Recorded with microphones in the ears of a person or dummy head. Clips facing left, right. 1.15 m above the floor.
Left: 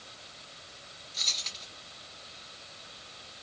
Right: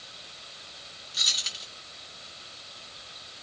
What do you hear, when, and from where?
1.1 s keys jangling: 5° right (ahead or behind), 0.5 m